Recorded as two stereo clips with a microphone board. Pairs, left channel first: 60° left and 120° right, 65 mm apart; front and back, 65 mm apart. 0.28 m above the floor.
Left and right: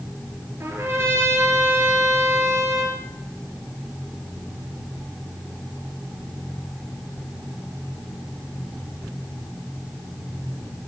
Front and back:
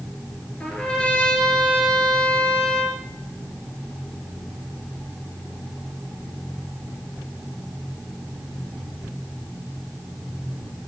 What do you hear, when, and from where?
0.6 s a trumpet: 75° right, 1.3 m